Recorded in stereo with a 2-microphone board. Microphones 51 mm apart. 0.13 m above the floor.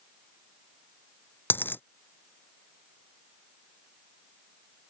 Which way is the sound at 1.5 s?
45° left (ahead or behind).